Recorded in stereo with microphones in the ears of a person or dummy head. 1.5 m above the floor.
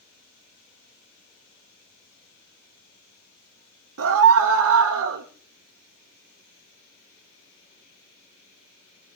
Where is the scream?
70° right (ahead or behind), 1.1 m.